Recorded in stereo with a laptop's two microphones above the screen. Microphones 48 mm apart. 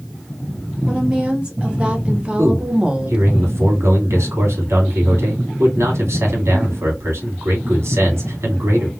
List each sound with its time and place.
0.9 s a woman speaking: 20° right (ahead or behind), 1.6 m; by 3.4 s 15° right (ahead or behind), 0.6 m
2.4 s a man speaking: 75° right (ahead or behind), 2 m